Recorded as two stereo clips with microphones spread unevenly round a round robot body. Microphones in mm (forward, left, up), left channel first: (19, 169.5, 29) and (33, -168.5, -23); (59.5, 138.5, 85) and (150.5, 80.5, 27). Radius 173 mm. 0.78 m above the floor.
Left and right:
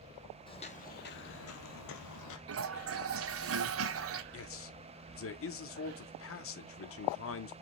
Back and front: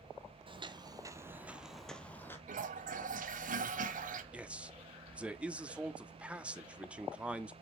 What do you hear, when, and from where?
0.5 s footsteps: 25° left, 1.4 m; by 2.4 s 100° left, 1.4 m
2.5 s a toilet flushing: 35° right, 1.1 m
4.3 s a man speaking: 40° left, 1.5 m